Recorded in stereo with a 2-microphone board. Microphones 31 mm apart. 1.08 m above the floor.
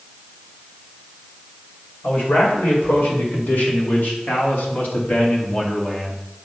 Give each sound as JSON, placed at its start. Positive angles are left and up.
{"t": 2.0, "sound": "a man speaking", "side_deg": 90, "distance_m": 4.0}